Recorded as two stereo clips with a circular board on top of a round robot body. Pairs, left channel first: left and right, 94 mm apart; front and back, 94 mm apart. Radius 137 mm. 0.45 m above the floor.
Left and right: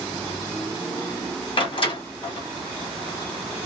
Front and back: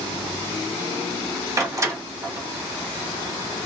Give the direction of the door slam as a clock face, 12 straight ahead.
8 o'clock.